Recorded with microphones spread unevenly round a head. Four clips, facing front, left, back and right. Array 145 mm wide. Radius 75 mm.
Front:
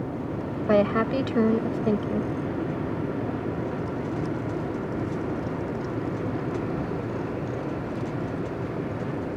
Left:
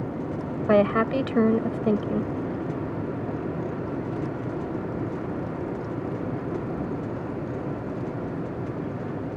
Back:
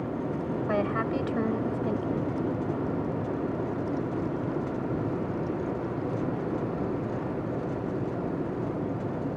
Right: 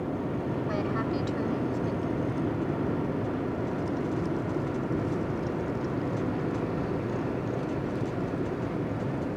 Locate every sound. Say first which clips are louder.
0.7 s a woman speaking: left 13 dB, front 8 dB; 60° left